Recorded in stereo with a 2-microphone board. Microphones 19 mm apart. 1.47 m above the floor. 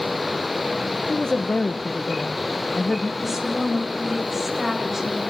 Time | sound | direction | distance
1.1 | a woman speaking | 40° left (ahead or behind) | 1.1 m
3.2 | a woman speaking | 10° right (ahead or behind) | 8.5 m